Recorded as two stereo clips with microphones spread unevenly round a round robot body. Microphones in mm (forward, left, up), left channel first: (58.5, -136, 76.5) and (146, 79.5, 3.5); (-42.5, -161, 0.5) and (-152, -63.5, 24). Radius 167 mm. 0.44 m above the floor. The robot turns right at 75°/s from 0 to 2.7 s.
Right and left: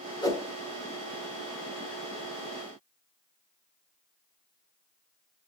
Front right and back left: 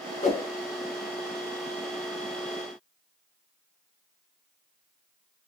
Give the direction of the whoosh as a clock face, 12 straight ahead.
1 o'clock.